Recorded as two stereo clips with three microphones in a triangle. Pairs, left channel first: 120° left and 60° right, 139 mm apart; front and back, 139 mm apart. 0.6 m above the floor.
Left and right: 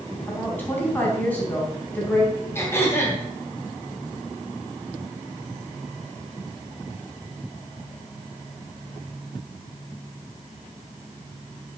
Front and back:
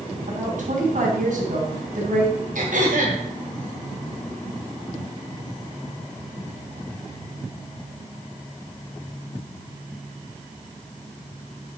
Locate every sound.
0.3 s a woman speaking: 160° right, 4 m
2.5 s throat clearing: 170° right, 3 m